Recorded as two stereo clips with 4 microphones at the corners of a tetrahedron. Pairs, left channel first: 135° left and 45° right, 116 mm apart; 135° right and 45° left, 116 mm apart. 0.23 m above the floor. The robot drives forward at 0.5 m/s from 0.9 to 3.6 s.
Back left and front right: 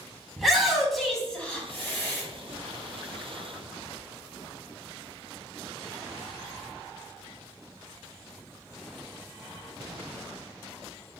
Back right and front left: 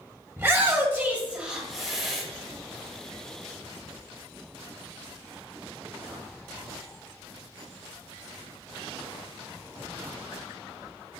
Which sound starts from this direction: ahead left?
A shout, at 0.4 s.